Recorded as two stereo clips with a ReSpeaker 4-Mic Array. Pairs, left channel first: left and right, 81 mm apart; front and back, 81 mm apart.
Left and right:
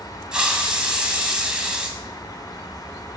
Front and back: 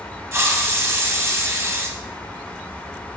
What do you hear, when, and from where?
0.3 s a hiss: 160° right, 1.2 m